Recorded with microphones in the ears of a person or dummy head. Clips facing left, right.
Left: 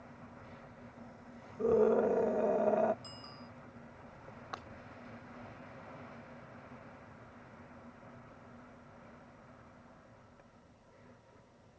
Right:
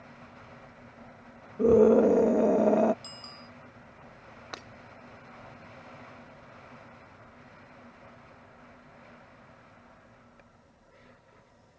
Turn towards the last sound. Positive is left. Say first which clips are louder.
# right 3 dB
turn(degrees=-30)  # may be behind; listen again after turning